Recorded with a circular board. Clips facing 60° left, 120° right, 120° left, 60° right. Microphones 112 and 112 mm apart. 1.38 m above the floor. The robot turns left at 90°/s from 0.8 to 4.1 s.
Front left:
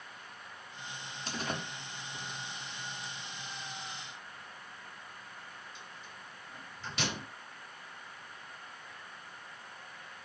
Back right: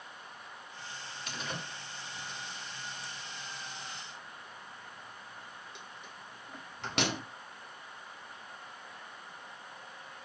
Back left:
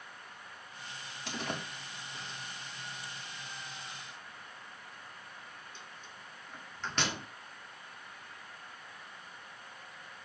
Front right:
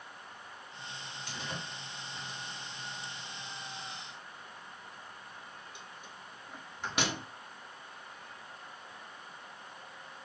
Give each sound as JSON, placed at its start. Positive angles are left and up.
{"t": 1.3, "sound": "a door slam", "azimuth_deg": 120, "distance_m": 2.5}